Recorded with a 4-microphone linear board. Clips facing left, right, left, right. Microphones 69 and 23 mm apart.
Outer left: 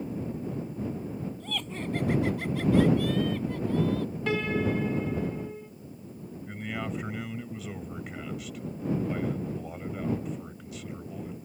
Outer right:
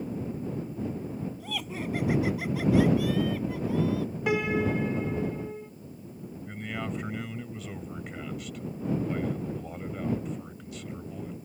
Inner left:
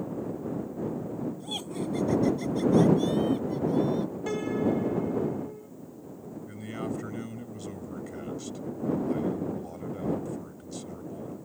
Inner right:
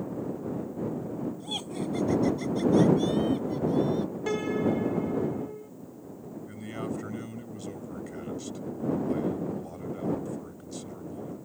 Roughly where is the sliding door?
I don't hear a sliding door.